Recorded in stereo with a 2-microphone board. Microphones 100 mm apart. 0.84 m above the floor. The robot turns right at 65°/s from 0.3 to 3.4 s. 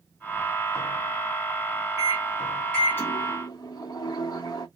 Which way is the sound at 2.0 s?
40° right.